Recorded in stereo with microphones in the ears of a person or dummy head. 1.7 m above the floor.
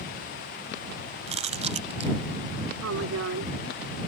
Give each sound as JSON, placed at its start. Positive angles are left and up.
{"t": 1.3, "sound": "chewing", "side_deg": -35}
{"t": 2.8, "sound": "a woman speaking", "side_deg": -80}